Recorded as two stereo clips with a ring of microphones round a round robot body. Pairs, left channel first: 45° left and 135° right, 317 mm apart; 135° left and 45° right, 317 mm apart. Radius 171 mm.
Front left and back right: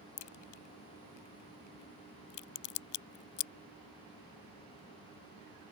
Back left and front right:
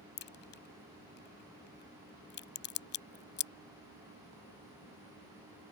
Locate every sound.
0.2 s a crack: 75° left